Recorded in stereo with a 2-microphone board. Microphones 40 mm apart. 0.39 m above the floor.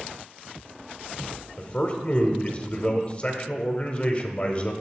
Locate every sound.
1.6 s a man speaking: 30° left (ahead or behind), 0.9 m